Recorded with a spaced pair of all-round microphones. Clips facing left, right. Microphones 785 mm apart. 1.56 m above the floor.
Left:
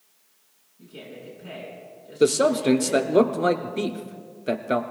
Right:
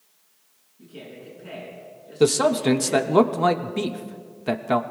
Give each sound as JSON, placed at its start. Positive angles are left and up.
{"t": 0.8, "sound": "a man speaking", "side_deg": 20, "distance_m": 5.5}
{"t": 2.2, "sound": "a man speaking", "side_deg": -35, "distance_m": 0.6}